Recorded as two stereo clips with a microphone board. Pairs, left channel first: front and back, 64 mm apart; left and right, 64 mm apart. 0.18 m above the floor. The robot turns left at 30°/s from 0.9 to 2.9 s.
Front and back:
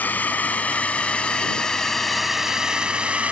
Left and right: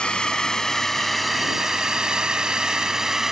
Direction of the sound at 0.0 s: 30° left.